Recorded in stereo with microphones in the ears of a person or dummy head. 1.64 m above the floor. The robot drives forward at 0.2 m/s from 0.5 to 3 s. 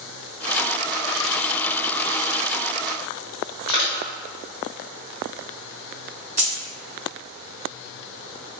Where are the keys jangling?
10° right (ahead or behind), 1.3 m.